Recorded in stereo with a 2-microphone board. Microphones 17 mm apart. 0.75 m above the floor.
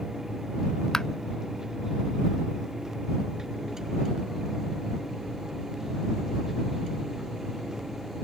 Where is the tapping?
35° left (ahead or behind).